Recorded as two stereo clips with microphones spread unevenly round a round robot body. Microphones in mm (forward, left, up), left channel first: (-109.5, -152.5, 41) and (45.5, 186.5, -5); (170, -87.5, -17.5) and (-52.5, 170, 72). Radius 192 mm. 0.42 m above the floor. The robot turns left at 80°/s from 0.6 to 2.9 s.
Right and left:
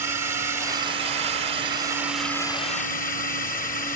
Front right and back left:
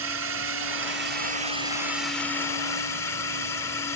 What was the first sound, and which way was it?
A drone, 120° left.